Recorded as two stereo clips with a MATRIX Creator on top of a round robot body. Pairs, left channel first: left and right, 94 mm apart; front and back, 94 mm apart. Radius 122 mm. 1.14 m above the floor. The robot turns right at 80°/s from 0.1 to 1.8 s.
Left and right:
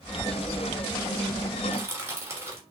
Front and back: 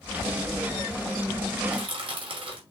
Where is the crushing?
165° right, 3 m; by 2.6 s 155° right, 3 m.